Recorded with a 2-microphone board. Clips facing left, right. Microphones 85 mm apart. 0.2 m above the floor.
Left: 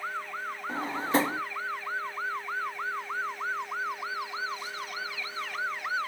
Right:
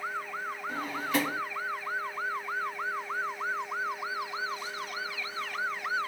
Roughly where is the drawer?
Left.